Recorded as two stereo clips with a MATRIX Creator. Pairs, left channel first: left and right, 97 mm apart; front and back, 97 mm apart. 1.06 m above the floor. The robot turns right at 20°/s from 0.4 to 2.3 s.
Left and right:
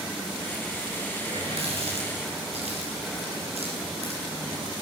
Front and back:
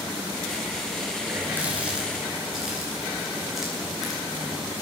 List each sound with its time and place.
1.2 s a running tap: 115° right, 10 m; by 4.7 s 95° right, 10 m